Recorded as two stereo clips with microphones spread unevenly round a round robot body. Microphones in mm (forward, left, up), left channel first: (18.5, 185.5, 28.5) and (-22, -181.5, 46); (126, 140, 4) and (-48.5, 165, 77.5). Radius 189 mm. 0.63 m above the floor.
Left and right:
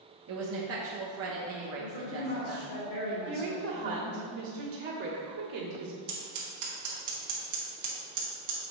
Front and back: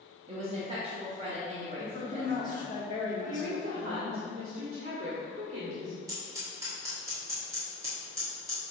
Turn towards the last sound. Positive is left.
turn(degrees=-95)